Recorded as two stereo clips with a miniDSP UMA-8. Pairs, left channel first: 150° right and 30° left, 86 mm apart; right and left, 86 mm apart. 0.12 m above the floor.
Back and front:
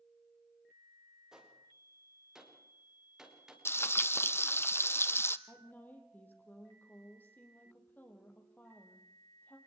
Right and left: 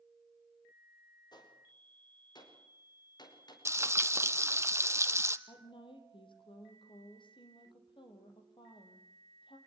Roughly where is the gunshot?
Ahead right.